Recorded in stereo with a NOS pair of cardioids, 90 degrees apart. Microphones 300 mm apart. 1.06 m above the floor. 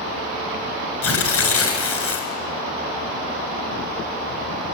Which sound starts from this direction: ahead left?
Tearing paper, at 1.0 s.